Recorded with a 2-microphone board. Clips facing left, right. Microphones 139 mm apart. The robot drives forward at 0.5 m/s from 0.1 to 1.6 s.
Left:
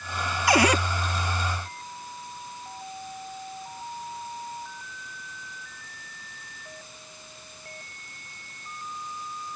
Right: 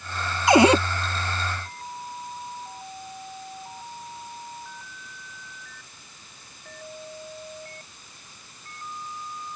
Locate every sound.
0.5 s a cupboard door: 25° right (ahead or behind); by 0.8 s 30° right (ahead or behind)